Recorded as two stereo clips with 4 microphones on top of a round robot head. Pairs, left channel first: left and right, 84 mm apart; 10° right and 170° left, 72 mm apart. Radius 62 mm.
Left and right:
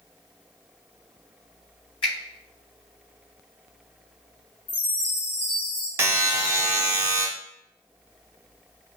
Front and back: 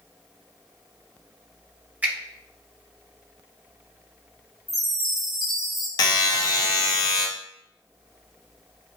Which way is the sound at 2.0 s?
105° left.